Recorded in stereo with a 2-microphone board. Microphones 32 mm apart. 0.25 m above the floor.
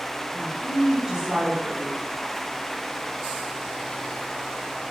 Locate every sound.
0.3 s a woman speaking: 15° right (ahead or behind), 1.0 m